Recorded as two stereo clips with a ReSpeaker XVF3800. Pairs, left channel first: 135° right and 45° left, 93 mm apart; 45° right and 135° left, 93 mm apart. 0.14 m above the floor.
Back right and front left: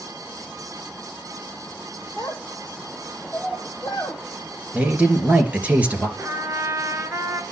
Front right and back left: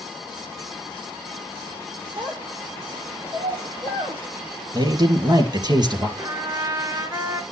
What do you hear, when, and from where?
2.2 s a child speaking: 145° left, 2.5 m
4.7 s a man speaking: 115° left, 2.5 m
6.2 s a trumpet: 100° left, 1.4 m